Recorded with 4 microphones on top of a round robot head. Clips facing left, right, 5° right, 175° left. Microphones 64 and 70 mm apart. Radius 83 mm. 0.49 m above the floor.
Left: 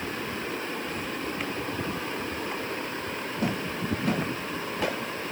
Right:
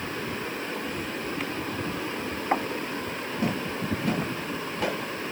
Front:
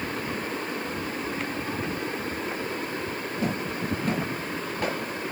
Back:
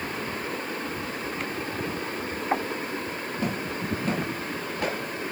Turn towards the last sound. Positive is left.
turn(degrees=-135)